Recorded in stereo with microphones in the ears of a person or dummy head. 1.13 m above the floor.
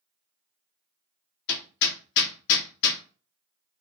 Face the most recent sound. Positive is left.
turn(degrees=65)  # may be behind; listen again after turning